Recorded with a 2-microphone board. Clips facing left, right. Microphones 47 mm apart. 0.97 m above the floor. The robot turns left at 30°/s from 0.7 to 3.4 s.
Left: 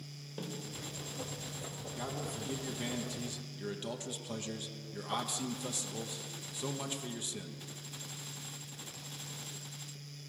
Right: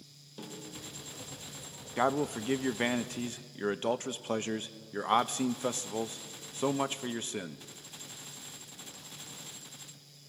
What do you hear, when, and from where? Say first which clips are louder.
0.4 s a snare drum: left 2 dB; 25° left (ahead or behind), 2.5 m
2.0 s a man speaking: right 12 dB; 80° right, 0.7 m; by 7.7 s 125° right, 0.7 m